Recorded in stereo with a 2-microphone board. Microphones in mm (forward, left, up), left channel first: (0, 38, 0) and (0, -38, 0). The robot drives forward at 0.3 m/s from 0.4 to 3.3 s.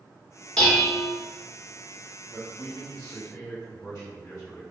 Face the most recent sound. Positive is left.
turn(degrees=35)  # may be behind; listen again after turning